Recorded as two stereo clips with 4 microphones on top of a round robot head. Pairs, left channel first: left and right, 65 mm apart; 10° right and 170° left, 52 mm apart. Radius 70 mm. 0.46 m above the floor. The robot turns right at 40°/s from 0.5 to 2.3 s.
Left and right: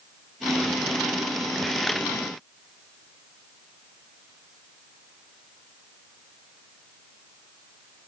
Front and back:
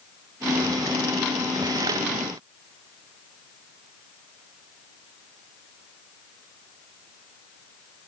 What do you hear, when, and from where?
Only background noise.